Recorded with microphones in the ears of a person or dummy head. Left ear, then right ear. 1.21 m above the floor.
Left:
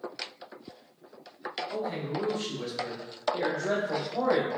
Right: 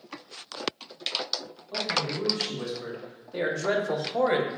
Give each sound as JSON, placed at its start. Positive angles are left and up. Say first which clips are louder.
{"t": 1.7, "sound": "a man speaking", "louder": "right 8 dB", "side_deg": 0, "distance_m": 1.5}